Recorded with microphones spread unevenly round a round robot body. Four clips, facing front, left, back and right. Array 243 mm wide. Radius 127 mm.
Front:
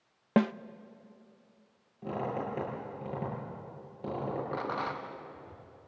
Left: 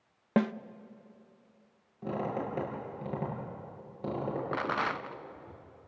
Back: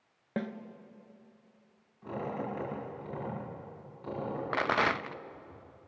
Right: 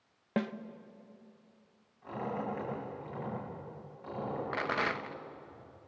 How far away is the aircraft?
No aircraft in this recording.